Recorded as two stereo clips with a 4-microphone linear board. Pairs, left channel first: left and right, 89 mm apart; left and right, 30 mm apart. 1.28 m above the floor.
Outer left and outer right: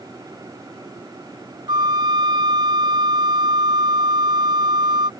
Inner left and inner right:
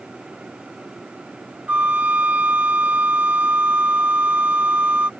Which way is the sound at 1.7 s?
60° right (ahead or behind).